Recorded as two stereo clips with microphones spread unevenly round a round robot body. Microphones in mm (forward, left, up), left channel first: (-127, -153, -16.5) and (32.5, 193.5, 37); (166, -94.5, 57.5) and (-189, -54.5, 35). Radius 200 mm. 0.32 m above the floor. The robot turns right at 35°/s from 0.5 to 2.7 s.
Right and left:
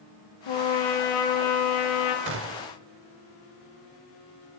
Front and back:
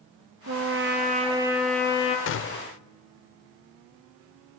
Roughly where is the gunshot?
Ahead.